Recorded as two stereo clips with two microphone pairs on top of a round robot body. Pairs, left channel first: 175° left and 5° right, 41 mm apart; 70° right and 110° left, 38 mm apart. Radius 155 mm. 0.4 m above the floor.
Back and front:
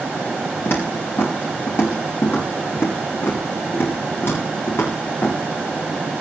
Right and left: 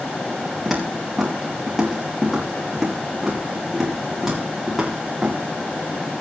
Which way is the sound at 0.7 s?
170° right.